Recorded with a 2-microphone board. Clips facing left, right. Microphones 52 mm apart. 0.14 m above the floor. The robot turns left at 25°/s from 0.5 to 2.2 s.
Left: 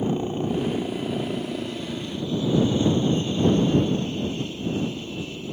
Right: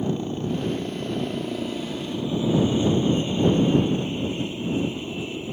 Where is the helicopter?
20° left; by 5.5 s 20° right.